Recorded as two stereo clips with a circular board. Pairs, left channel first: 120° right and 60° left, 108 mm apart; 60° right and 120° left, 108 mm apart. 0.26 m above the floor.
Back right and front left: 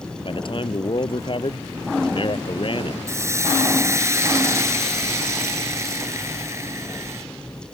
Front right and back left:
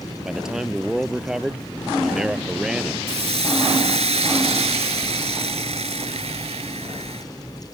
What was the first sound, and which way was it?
A man speaking, 155° right.